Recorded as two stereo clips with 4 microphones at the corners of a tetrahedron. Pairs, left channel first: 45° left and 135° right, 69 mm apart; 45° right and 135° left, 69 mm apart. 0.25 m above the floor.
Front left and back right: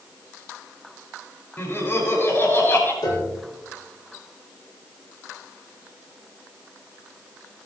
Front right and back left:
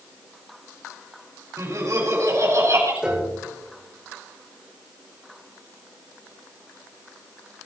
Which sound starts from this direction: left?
Laughter, at 1.6 s.